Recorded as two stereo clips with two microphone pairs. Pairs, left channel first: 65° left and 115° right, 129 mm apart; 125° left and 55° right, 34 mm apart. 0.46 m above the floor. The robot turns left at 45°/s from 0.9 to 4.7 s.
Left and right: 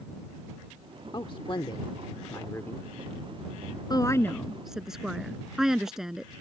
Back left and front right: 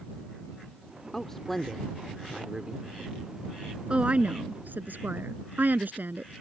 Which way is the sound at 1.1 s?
70° left.